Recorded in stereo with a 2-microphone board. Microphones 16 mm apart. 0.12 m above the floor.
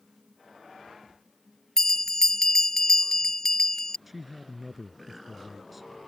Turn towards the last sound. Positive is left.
turn(degrees=-10)  # may be behind; listen again after turning